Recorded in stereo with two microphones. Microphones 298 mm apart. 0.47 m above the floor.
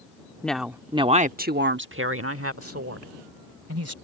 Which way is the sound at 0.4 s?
5° left (ahead or behind).